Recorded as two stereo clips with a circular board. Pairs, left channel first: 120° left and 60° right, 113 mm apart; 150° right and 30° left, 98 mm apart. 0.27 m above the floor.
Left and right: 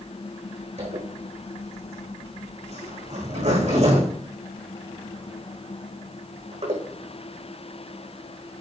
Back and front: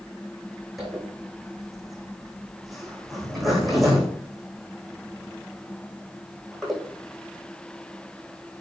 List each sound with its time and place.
0.8 s a zipper: 60° right, 4.5 m